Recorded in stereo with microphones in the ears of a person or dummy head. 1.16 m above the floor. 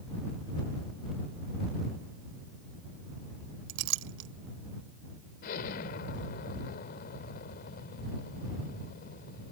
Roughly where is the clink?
Right.